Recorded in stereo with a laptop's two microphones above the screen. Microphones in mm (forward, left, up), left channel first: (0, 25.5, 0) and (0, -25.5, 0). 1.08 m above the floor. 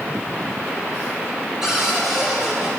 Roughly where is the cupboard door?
Centre.